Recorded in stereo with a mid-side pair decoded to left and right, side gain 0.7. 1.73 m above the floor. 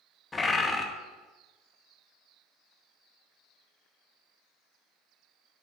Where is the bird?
15° left, 0.7 m.